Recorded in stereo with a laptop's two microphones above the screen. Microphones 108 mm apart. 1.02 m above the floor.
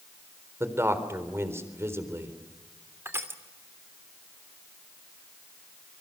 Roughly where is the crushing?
Right.